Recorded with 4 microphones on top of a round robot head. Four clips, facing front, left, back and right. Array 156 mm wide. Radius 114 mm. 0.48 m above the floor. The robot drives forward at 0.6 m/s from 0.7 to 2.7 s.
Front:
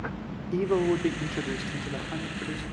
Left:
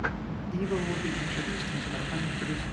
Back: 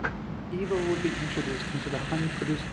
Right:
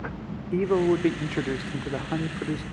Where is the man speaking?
70° right, 1.3 m; by 2.6 s 130° right, 1.5 m.